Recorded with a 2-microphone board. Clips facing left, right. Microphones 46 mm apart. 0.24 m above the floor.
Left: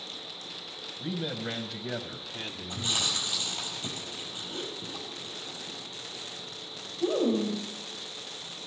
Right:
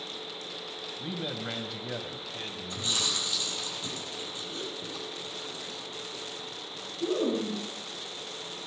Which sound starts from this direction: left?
Chewing, at 2.7 s.